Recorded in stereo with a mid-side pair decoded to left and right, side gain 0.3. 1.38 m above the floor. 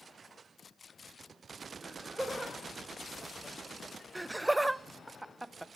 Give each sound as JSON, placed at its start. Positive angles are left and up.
{"t": 1.8, "sound": "laughter", "azimuth_deg": -5, "distance_m": 7.5}
{"t": 4.2, "sound": "laughter", "azimuth_deg": -15, "distance_m": 0.8}